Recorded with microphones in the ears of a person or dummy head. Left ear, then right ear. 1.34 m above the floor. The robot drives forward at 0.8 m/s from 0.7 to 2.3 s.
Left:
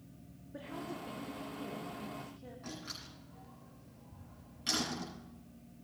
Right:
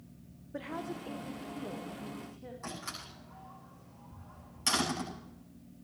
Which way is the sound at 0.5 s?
20° right (ahead or behind).